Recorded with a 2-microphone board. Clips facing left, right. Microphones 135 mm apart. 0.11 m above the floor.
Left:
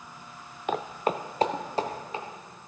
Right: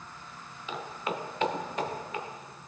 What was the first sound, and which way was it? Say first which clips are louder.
Footsteps: left 7 dB; 60° left (ahead or behind).